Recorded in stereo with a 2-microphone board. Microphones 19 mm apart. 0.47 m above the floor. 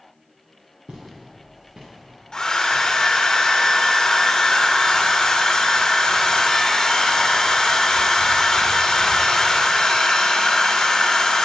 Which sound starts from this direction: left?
A hair dryer, at 2.3 s.